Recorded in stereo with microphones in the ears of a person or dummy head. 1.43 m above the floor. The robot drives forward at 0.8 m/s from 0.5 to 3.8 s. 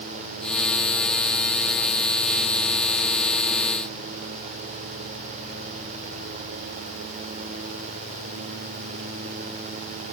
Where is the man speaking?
No man speaking in this recording.